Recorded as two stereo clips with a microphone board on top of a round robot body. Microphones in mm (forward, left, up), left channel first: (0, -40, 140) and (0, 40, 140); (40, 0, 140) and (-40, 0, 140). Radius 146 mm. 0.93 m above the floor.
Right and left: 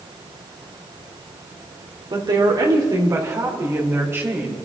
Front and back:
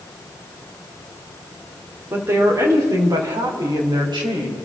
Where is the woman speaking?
120° left, 3 m; by 4.5 s 155° left, 4 m.